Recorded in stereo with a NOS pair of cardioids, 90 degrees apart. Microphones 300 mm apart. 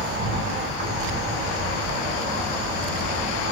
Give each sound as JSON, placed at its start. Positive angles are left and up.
{"t": 0.0, "sound": "an insect", "azimuth_deg": -65, "distance_m": 3.0}